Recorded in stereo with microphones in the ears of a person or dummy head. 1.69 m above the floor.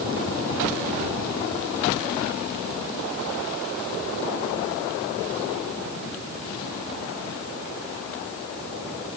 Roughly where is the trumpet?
No trumpet in this recording.